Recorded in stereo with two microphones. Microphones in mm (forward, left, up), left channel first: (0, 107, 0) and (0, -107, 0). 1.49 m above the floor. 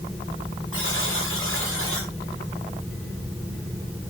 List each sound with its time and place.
0.7 s a buzzer: 75° left (ahead or behind), 6 m